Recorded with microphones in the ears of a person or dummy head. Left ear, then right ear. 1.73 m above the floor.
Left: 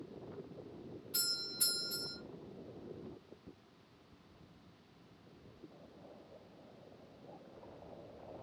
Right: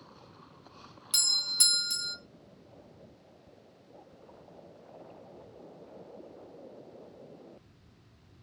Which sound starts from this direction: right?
A doorbell, at 1.1 s.